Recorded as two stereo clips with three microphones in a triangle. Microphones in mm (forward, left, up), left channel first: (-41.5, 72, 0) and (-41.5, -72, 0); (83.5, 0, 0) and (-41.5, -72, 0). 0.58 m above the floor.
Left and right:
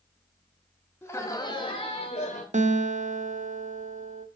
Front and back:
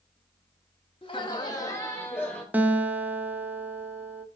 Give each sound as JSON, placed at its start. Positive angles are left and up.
{"t": 1.0, "sound": "laughter", "azimuth_deg": 25, "distance_m": 0.9}
{"t": 2.5, "sound": "a guitar", "azimuth_deg": -75, "distance_m": 0.6}